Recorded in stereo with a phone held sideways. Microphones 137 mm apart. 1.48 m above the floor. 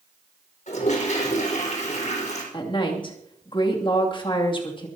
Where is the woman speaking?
40° left (ahead or behind), 2.5 m.